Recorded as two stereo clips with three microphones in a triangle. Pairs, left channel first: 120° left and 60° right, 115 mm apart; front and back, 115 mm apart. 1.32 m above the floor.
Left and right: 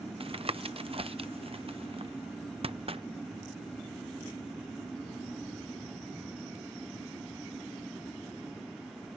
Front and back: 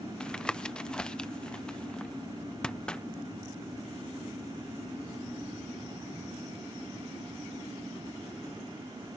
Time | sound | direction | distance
0.2 | tapping | 80° right | ?